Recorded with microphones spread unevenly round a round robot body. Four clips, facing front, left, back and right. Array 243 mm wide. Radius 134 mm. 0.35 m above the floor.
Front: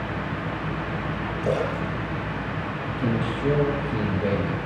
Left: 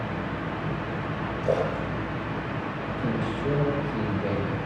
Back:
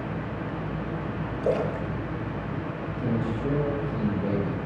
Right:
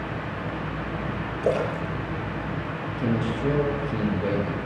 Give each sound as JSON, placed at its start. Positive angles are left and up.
{"t": 1.4, "sound": "a splash", "azimuth_deg": -90, "distance_m": 7.0}
{"t": 3.0, "sound": "a man speaking", "azimuth_deg": -35, "distance_m": 8.0}